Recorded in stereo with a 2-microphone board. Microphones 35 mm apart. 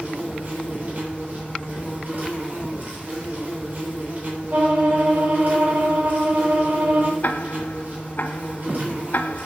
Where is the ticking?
60° left (ahead or behind), 0.9 m.